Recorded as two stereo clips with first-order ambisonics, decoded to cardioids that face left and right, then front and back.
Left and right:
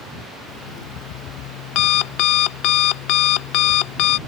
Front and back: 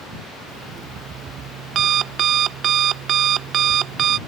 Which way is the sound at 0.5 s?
125° left.